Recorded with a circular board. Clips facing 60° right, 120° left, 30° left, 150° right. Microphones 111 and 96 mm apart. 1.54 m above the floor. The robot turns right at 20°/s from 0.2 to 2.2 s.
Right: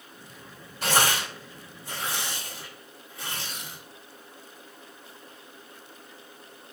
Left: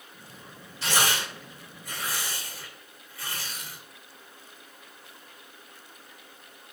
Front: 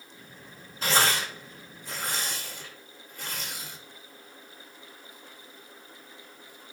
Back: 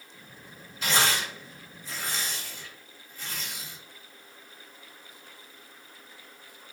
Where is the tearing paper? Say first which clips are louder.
Right 3 dB, front 1 dB; 20° right, 2 m; by 3.8 s 5° left, 2 m.